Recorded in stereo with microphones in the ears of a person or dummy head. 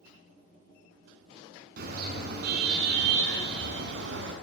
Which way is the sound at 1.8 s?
60° right (ahead or behind).